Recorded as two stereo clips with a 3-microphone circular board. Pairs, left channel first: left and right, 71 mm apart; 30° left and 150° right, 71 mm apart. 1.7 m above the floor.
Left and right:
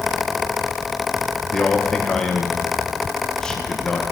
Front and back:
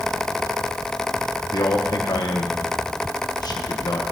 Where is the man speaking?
10° left, 2.0 m.